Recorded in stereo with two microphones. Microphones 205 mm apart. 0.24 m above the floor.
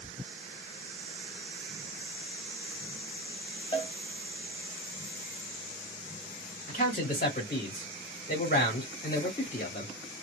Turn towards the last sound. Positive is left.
turn(degrees=50)  # may be behind; listen again after turning